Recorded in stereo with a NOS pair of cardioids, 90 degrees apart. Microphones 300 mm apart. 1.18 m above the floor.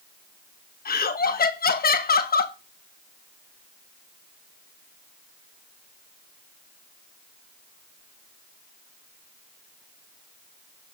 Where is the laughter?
30° left, 1.3 m.